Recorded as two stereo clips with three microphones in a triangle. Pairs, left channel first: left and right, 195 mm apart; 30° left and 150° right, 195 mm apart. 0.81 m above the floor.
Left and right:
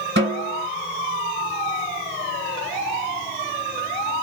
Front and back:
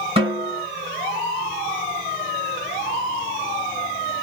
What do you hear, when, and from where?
0.2 s a snare drum: 90° right, 1.9 m